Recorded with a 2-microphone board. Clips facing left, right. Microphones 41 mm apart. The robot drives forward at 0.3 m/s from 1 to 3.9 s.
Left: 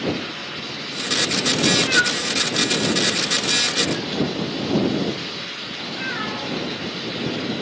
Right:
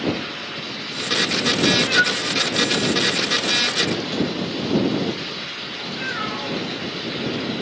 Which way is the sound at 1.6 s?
15° left (ahead or behind).